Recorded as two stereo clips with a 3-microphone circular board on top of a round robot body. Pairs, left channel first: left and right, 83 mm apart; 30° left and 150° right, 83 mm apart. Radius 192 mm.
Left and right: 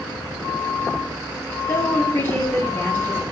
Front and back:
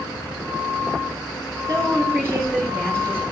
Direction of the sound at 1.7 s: 160° left.